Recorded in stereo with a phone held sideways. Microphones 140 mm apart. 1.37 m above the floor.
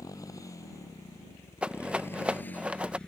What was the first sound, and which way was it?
A motorcycle, 25° left (ahead or behind).